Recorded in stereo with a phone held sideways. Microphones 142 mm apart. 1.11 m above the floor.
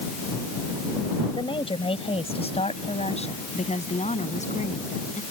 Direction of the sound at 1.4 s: 40° left (ahead or behind).